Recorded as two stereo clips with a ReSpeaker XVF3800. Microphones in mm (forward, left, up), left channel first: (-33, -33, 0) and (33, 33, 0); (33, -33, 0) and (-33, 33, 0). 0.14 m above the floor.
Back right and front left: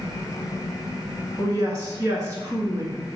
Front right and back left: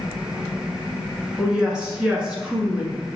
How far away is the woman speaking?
About 1.4 m.